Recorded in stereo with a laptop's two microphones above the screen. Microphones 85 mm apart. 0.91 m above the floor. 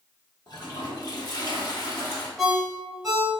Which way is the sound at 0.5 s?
50° left (ahead or behind).